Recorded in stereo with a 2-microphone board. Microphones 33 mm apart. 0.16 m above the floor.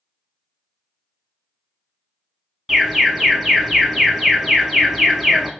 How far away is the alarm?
About 0.8 m.